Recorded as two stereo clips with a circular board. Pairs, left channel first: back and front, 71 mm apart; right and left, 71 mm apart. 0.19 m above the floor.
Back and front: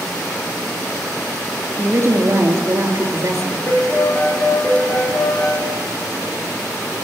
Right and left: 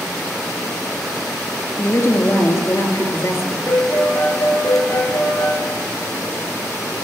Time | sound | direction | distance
1.8 | a woman speaking | 45° right | 2.5 m
3.7 | a piano | 125° right | 5.5 m